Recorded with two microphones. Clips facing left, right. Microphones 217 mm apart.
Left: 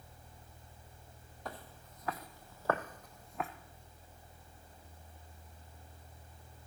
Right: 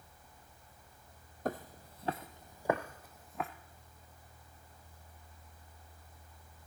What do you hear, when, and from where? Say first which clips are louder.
1.4 s footsteps: right 9 dB; 50° right (ahead or behind), 0.8 m; by 3.5 s centre (ahead or behind), 1.4 m